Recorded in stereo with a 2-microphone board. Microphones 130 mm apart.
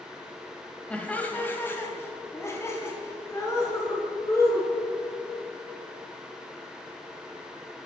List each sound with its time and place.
0.9 s laughter: 10° left (ahead or behind), 1.0 m; by 4.7 s 25° left (ahead or behind), 3 m